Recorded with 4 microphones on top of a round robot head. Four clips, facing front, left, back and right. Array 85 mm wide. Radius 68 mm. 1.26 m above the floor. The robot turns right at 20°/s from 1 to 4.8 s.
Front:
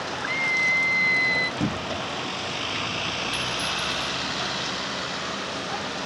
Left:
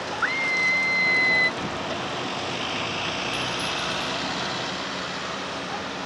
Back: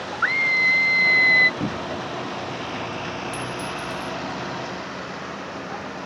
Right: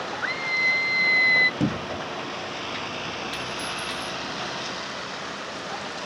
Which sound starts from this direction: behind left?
A scream, at 0.2 s.